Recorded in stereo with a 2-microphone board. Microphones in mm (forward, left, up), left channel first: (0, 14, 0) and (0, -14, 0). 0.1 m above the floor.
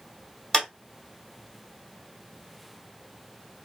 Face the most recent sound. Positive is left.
turn(degrees=15)  # may be behind; listen again after turning